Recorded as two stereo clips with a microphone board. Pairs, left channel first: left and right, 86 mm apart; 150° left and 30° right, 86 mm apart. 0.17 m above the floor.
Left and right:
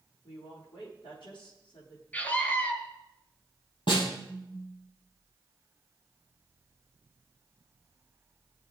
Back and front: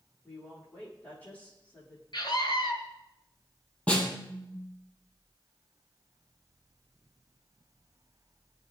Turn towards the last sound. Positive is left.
turn(degrees=75)